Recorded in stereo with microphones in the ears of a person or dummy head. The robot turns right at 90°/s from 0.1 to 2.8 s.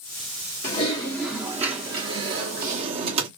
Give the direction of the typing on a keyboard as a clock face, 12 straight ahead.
8 o'clock.